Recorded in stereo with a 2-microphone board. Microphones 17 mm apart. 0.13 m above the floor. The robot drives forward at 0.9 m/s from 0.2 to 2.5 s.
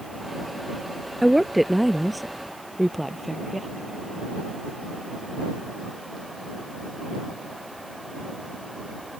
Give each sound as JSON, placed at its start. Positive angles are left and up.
{"t": 1.2, "sound": "a woman speaking", "side_deg": 0}